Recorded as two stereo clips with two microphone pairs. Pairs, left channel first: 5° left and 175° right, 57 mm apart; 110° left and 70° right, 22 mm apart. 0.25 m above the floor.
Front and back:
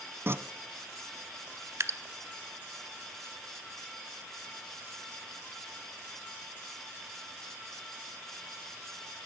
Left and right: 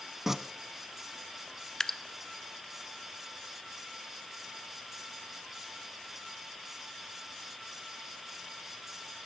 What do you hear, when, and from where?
0.3 s tearing paper: 135° right, 0.7 m
1.8 s dripping: 175° left, 0.6 m